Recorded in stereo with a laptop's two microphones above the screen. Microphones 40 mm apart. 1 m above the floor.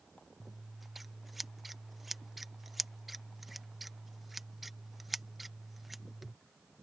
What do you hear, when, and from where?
0.4 s scissors: 5° right (ahead or behind)